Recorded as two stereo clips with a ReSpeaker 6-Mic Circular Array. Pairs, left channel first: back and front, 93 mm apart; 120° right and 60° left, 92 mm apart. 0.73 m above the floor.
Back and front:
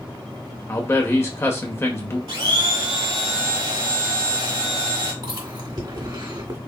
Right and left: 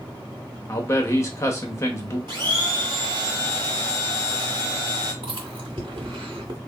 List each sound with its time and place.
0.7 s a man speaking: 145° right, 0.9 m
2.3 s a blender: 25° left, 1.4 m
5.2 s chewing: 35° left, 1.7 m